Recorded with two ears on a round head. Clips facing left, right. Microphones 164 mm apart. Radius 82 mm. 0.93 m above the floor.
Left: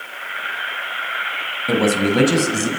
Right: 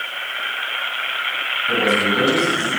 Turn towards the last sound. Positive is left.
turn(degrees=70)  # may be behind; listen again after turning